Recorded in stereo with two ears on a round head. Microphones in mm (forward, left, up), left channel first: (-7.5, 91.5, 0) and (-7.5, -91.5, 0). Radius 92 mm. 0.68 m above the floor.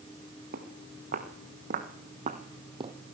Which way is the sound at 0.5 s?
50° right (ahead or behind).